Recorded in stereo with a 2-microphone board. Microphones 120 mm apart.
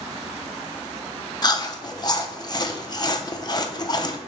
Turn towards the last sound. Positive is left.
turn(degrees=35)  # may be behind; listen again after turning